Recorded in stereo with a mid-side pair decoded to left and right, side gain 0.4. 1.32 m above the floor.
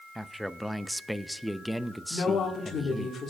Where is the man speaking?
Straight ahead, 0.6 m.